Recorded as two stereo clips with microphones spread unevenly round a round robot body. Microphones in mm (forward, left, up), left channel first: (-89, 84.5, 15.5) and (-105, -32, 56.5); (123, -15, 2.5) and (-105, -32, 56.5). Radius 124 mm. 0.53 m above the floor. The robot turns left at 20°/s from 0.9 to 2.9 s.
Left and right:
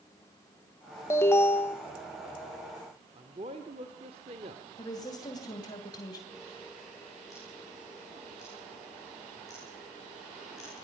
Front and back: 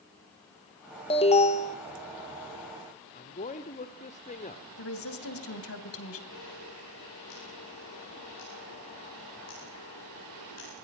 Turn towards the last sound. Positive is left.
turn(degrees=-10)